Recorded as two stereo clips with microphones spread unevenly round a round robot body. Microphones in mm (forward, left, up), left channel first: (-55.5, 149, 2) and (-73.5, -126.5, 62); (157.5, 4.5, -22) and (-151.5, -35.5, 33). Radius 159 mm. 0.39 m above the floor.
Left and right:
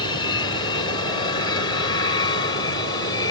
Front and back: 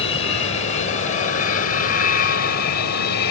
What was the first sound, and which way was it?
An aircraft, 45° left.